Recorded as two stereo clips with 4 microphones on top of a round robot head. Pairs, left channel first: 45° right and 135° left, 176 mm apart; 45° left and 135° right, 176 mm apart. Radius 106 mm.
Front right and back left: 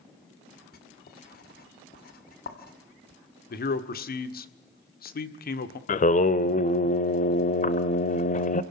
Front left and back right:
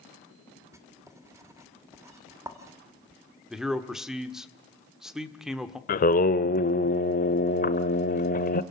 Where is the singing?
5° left, 0.9 m.